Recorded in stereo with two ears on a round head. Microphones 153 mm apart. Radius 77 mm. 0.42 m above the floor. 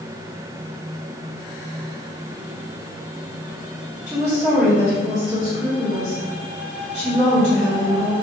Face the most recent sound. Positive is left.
turn(degrees=-15)  # may be behind; listen again after turning